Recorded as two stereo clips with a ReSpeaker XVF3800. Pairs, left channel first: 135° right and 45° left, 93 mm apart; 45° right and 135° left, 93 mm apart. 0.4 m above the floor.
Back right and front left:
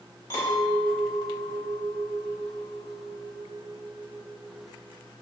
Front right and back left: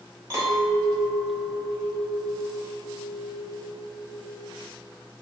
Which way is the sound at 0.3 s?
175° left.